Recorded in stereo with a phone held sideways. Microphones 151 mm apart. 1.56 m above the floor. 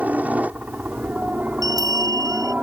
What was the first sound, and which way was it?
A helicopter, 10° right (ahead or behind).